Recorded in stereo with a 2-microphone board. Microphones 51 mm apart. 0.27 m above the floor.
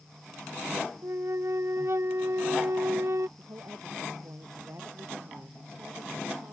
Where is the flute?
65° right (ahead or behind).